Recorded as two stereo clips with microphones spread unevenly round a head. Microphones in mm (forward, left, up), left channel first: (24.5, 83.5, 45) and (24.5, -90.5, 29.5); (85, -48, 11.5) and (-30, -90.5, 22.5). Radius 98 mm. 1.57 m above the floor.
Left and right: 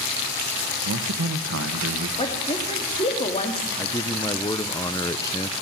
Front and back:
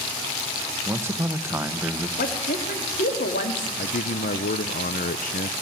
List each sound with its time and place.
0.8 s a man speaking: 90° right, 1.6 m
2.2 s a woman speaking: 30° left, 3.5 m
3.8 s a man speaking: 25° left, 0.8 m